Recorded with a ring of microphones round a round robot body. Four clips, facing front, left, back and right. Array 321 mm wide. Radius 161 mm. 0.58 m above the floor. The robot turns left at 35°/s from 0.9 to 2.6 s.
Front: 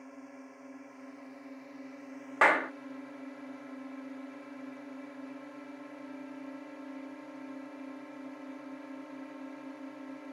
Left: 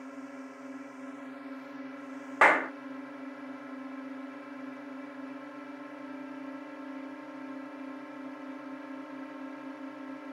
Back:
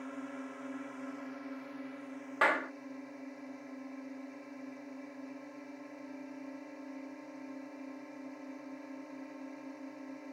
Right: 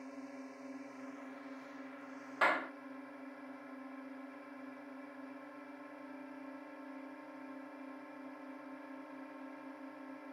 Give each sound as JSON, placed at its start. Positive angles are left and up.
{"t": 0.0, "sound": "a drone", "azimuth_deg": 140}
{"t": 2.4, "sound": "a clap", "azimuth_deg": 70}